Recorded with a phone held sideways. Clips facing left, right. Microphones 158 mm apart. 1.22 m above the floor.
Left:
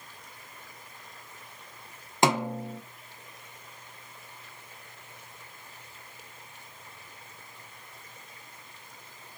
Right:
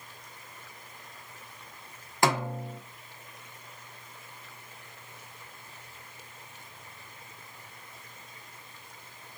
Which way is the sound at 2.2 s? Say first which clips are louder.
Left 2 dB; 20° left (ahead or behind).